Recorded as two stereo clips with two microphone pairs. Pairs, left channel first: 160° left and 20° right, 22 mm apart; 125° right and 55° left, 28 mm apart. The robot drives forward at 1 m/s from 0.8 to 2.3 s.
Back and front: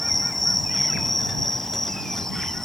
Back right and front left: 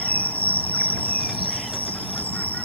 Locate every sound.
0.0 s an insect: 110° right; by 2.7 s 125° right